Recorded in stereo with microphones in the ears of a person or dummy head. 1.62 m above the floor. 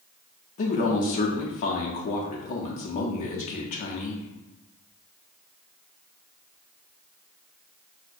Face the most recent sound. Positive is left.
turn(degrees=40)  # may be behind; listen again after turning